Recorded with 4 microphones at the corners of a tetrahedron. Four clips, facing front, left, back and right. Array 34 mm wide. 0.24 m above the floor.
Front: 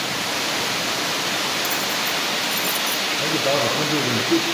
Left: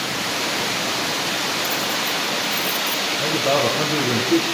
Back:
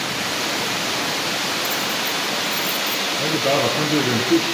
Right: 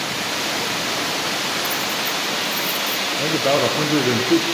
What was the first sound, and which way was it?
Keys jangling, 10° right.